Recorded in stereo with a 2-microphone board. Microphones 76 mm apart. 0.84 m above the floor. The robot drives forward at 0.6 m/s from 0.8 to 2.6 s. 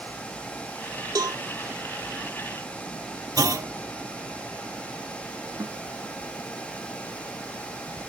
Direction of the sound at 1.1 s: 60° right (ahead or behind).